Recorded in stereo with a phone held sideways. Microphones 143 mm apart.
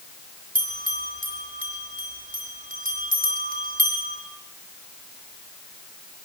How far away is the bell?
About 5 m.